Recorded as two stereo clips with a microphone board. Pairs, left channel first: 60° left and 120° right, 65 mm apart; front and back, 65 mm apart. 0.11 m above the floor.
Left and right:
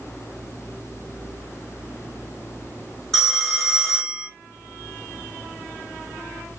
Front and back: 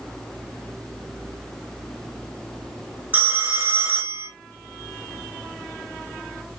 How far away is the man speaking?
I don't hear a man speaking.